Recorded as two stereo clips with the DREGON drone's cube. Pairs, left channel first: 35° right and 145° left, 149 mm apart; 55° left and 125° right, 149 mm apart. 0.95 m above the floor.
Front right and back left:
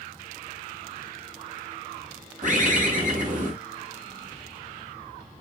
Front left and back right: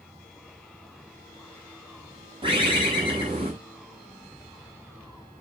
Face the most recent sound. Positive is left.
turn(degrees=180)